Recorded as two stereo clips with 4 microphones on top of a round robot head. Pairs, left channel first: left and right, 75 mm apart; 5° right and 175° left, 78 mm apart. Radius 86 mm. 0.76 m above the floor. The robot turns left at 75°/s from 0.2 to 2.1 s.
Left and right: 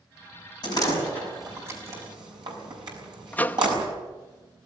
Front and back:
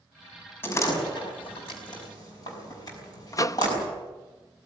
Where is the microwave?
25° left, 0.7 m.